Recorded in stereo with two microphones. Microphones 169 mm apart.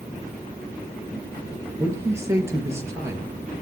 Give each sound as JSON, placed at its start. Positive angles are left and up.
{"t": 1.8, "sound": "a man speaking", "side_deg": -15, "distance_m": 4.5}